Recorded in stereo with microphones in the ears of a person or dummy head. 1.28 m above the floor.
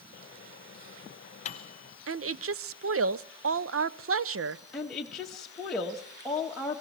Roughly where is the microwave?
Left.